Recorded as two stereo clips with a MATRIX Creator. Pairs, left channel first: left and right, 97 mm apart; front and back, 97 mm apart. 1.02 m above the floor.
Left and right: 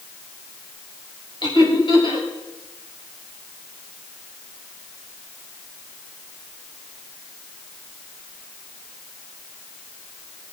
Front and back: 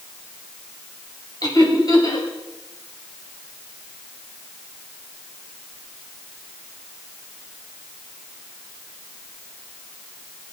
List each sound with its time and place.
1.4 s laughter: 50° left, 5.5 m